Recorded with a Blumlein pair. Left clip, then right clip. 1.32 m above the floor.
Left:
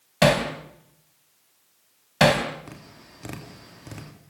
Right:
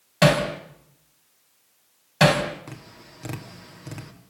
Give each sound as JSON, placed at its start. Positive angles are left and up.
{"t": 0.2, "sound": "hammering", "azimuth_deg": 5, "distance_m": 3.5}
{"t": 2.7, "sound": "tapping", "azimuth_deg": -5, "distance_m": 2.5}